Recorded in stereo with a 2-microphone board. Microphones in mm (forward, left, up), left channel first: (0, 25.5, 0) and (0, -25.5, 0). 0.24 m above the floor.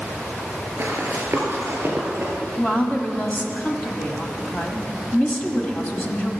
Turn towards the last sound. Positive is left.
turn(degrees=30)  # may be behind; listen again after turning